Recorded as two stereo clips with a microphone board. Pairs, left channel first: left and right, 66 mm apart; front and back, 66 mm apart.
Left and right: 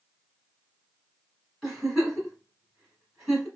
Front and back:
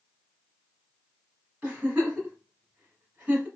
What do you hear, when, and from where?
1.6 s a giggle: straight behind, 1.4 m